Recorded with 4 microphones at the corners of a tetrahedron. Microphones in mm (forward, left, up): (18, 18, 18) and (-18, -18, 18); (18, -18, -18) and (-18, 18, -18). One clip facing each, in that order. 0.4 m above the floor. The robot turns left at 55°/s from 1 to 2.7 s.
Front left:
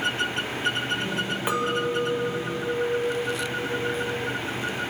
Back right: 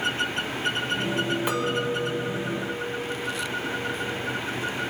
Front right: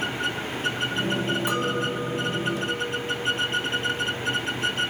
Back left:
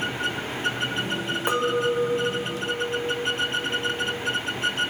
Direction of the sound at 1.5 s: 110° left.